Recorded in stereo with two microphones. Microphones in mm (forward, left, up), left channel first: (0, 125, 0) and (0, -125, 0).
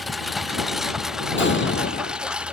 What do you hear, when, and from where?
0.0 s a lawn mower: centre (ahead or behind); by 2.5 s 5° right (ahead or behind)
1.4 s an explosion: 50° left (ahead or behind)